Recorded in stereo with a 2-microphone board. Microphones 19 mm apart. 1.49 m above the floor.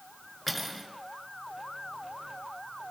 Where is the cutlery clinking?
5° left (ahead or behind), 3.5 m.